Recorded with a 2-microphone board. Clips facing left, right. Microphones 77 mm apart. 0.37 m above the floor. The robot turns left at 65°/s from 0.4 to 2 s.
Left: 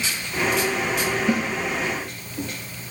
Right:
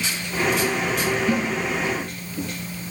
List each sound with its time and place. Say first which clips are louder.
1.3 s a snare drum: left 1 dB; 25° left (ahead or behind), 5 m; by 1.5 s 35° left (ahead or behind), 5 m